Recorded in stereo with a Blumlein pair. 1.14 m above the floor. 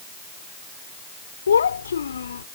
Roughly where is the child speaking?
Left.